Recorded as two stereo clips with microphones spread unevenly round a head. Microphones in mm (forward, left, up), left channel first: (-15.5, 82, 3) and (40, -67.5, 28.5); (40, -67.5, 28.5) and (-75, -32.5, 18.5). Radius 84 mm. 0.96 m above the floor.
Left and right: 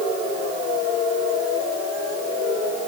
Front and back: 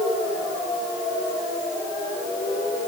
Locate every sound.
Only background noise.